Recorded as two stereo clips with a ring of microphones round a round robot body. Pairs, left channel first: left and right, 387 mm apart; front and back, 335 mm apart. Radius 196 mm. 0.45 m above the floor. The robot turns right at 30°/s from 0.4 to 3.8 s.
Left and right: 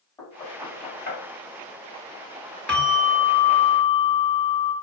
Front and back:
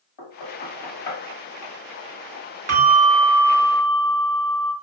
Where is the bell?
175° left, 1.4 m; by 4.7 s 150° right, 1.4 m.